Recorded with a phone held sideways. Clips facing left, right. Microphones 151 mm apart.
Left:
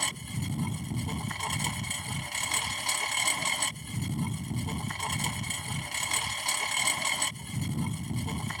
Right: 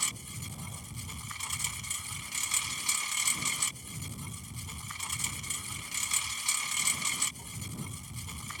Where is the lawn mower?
70° left (ahead or behind).